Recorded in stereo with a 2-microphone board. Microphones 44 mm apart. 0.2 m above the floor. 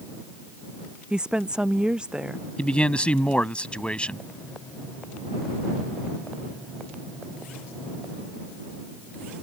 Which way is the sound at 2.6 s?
25° left (ahead or behind).